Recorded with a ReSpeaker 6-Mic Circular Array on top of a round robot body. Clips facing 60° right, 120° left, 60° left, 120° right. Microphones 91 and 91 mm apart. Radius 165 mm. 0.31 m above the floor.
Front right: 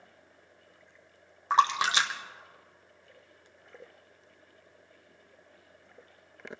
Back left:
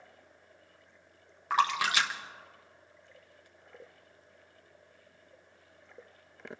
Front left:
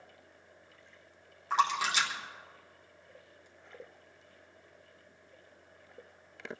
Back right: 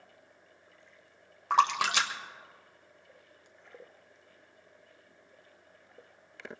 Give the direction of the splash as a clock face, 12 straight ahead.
4 o'clock.